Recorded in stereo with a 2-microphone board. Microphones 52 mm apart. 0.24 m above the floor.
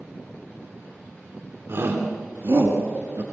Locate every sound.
1.7 s a shout: 60° right (ahead or behind), 2 m; by 3.2 s 65° right (ahead or behind), 3 m